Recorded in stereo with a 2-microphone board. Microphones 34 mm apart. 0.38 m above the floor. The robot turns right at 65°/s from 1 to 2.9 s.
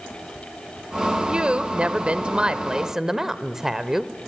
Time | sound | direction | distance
1.3 | a woman speaking | 130° right | 1.2 m